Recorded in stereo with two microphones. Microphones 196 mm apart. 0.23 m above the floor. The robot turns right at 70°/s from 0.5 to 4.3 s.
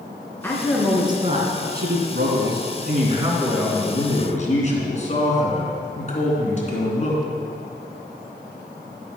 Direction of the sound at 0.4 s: 165° left.